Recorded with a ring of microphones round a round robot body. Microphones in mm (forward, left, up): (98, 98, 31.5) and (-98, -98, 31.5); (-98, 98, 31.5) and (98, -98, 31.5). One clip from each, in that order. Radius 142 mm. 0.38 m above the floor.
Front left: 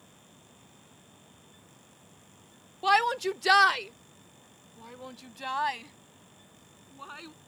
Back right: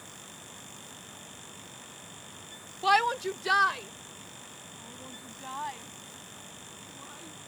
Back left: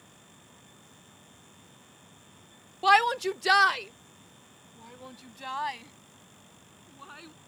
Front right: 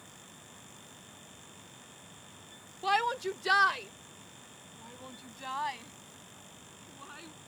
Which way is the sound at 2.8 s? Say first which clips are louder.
Even, back left 8 dB; 145° left.